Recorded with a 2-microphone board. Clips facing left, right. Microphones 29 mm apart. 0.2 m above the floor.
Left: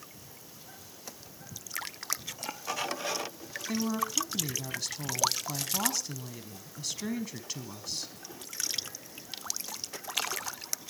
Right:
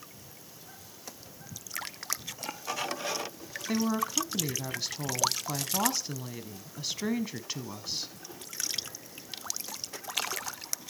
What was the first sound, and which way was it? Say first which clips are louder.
A woman speaking: right 2 dB; 20° right (ahead or behind).